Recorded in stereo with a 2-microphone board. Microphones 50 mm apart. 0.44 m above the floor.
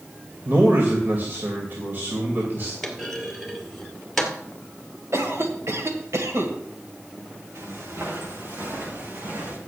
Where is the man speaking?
45° right (ahead or behind), 2.5 m.